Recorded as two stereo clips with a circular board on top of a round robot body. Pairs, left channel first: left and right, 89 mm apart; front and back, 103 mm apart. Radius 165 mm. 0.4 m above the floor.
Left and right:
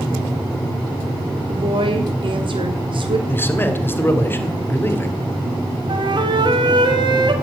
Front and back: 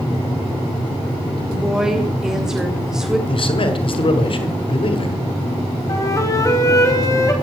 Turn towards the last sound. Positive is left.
turn(degrees=-60)